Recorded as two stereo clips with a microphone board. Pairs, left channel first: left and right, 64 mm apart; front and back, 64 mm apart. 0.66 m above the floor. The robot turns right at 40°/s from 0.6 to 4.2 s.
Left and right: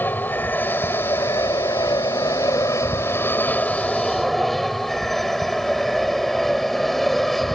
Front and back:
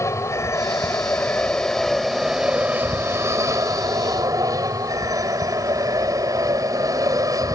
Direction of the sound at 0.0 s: 35° left.